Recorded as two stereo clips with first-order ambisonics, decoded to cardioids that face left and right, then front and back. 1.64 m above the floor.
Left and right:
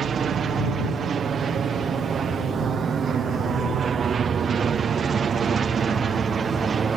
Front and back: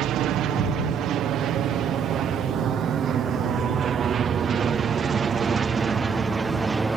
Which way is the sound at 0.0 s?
150° right.